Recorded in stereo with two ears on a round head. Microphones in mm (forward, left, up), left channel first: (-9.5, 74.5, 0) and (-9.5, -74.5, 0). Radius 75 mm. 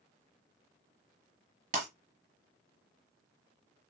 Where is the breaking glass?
40° right (ahead or behind), 2 m.